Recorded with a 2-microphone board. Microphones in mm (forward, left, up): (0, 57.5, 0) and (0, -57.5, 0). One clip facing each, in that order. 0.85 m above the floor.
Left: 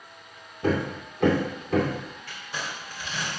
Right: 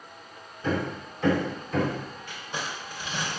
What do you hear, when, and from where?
0.6 s hammering: 65° left (ahead or behind), 2.5 m
2.3 s crumpling: 15° right (ahead or behind), 3 m